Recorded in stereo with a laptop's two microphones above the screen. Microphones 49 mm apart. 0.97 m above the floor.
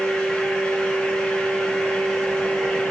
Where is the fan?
10° left (ahead or behind), 6.5 m.